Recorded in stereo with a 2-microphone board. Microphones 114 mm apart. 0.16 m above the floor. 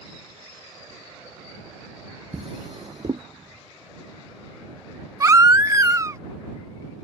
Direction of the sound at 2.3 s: 50° right (ahead or behind).